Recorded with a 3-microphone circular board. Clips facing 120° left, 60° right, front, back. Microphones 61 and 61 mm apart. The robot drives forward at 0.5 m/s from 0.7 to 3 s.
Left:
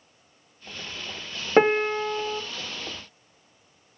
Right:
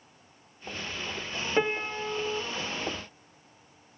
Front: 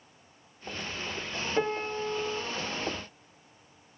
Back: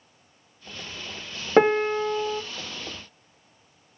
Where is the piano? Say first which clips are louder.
Left 9 dB, back 12 dB; 165° left, 0.5 m; by 2.4 s 170° left, 0.9 m.